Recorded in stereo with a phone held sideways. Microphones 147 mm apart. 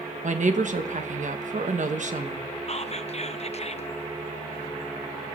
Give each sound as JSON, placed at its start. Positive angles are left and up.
{"t": 0.2, "sound": "a woman speaking", "side_deg": -60, "distance_m": 1.2}
{"t": 2.7, "sound": "whispering", "side_deg": 50, "distance_m": 0.7}